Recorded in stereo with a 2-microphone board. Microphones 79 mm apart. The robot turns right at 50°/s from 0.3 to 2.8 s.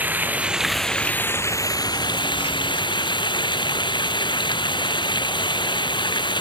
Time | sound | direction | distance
0.0 | running water | 20° right | ?